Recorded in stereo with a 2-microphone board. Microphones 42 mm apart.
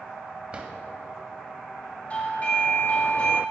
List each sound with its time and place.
0.5 s a drawer: 25° right (ahead or behind), 1.9 m
2.1 s a doorbell: 35° left (ahead or behind), 3 m